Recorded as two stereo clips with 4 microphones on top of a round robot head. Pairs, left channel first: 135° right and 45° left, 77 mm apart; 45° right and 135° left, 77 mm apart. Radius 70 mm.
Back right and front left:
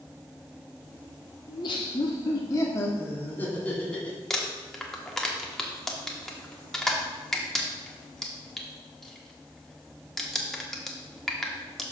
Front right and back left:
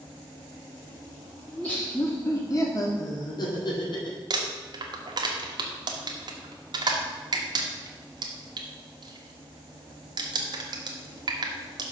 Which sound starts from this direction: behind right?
Laughter, at 1.5 s.